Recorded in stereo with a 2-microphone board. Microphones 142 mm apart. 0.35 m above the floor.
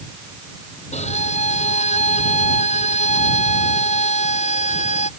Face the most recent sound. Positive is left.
turn(degrees=50)  # may be behind; listen again after turning